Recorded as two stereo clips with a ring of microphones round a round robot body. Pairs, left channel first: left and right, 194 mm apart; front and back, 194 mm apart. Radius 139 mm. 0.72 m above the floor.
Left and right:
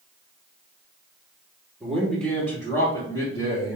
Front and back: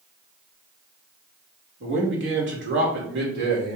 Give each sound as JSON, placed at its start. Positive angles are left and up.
{"t": 1.8, "sound": "a man speaking", "azimuth_deg": 180, "distance_m": 2.0}